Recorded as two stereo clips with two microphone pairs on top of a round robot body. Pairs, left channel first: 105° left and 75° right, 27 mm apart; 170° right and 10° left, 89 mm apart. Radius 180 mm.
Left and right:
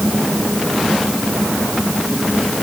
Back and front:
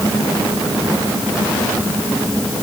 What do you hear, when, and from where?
Only background noise.